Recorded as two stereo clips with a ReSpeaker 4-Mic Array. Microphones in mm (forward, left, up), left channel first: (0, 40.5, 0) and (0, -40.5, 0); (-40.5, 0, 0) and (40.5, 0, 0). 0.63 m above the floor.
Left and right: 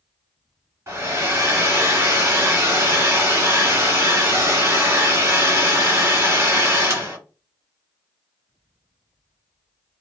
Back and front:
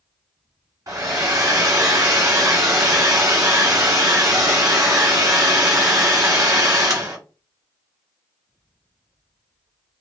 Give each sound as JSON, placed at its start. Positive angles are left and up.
{"t": 0.9, "sound": "a hair dryer", "azimuth_deg": -40, "distance_m": 1.2}